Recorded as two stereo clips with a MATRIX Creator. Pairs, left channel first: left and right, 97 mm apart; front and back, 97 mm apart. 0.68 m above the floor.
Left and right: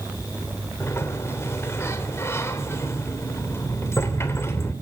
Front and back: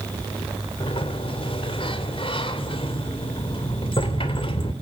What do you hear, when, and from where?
0.8 s a sliding door: 25° left, 2.5 m